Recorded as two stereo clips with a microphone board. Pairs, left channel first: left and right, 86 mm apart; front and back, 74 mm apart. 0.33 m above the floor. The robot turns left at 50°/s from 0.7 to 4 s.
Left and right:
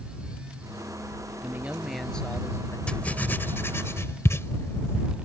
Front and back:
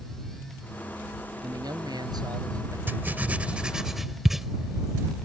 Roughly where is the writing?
Behind left.